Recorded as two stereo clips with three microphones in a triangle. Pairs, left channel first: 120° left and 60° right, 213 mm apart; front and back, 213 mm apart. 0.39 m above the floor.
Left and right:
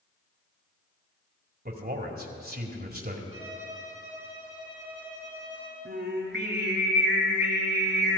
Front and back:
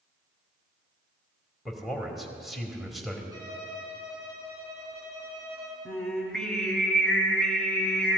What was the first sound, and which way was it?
A man speaking, 90° right.